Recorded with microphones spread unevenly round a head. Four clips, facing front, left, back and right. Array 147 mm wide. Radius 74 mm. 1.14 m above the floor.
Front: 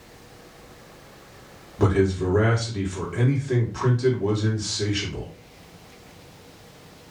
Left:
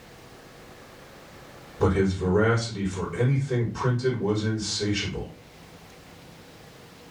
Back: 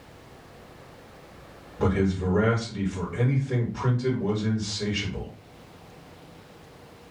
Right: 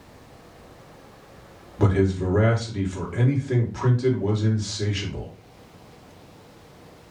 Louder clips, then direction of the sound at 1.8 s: Right 1 dB, front 4 dB; 40° right.